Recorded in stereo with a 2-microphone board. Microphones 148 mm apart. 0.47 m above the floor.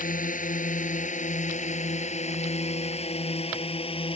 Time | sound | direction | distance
0.0 | a drone | 65° left (ahead or behind) | ?